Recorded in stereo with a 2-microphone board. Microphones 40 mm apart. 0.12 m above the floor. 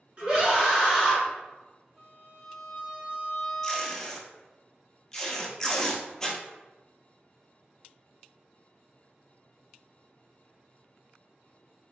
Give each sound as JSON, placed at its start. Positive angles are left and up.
{"t": 0.2, "sound": "a scream", "side_deg": -30, "distance_m": 1.7}
{"t": 2.0, "sound": "a violin", "side_deg": -20, "distance_m": 1.6}
{"t": 3.6, "sound": "tape being pulled", "side_deg": 10, "distance_m": 0.8}